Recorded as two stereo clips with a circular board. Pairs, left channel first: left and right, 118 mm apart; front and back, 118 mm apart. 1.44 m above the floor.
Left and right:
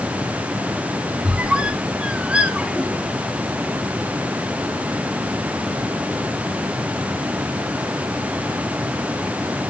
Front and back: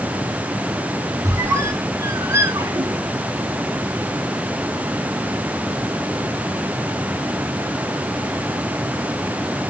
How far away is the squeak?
About 1.1 m.